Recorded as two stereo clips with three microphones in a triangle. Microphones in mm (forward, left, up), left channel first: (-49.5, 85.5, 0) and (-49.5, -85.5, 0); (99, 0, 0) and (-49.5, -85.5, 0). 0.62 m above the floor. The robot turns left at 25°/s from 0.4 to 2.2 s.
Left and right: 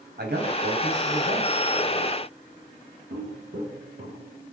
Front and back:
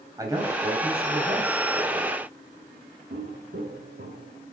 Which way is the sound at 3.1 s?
125° right.